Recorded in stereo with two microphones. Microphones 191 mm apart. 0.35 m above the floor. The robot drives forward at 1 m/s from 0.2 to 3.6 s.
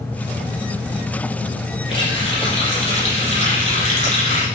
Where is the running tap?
30° left (ahead or behind), 7.5 m; by 4.5 s 40° left (ahead or behind), 6 m.